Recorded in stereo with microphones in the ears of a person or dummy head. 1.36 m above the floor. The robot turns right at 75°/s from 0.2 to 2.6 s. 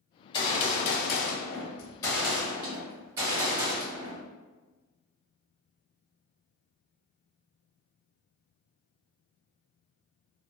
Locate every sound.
0.3 s a gunshot: 30° left, 0.7 m; by 4.2 s 160° right, 0.7 m